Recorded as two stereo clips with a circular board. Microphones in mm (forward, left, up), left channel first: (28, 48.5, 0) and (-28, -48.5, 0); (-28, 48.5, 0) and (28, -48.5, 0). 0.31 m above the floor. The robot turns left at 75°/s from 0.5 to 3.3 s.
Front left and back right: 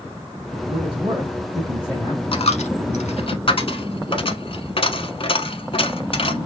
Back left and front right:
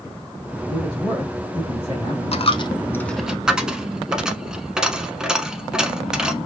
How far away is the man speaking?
About 2.5 m.